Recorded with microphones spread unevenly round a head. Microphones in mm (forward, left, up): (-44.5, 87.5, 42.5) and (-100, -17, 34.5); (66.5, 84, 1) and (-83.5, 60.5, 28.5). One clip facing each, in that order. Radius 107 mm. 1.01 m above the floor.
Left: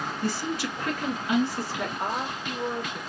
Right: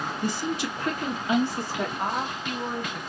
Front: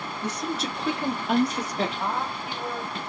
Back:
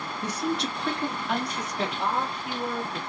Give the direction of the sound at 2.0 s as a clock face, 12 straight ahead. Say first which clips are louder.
Right 1 dB, back 1 dB; 4 o'clock.